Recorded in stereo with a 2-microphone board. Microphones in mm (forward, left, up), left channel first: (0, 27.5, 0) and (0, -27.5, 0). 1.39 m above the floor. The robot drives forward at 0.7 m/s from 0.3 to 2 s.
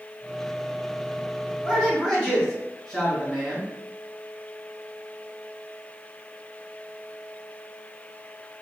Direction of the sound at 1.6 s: 5° left (ahead or behind).